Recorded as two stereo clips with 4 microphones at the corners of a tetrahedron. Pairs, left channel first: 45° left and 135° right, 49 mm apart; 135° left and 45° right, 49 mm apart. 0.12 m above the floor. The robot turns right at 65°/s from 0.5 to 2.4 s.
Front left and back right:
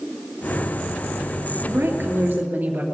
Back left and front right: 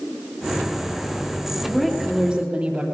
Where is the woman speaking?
150° right, 3 m; by 2.8 s 100° right, 3 m.